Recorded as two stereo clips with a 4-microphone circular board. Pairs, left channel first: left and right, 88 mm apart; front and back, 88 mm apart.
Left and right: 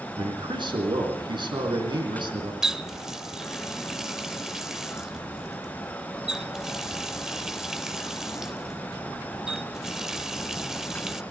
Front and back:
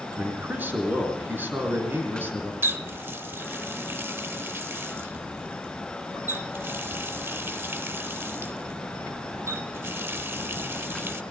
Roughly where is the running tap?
Behind.